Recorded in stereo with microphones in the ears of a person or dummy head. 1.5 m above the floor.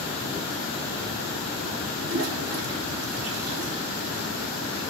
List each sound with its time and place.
2.0 s a toilet flushing: 80° right, 3.5 m